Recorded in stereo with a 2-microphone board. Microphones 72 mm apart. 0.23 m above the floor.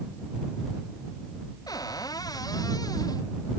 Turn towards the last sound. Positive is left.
turn(degrees=60)  # may be behind; listen again after turning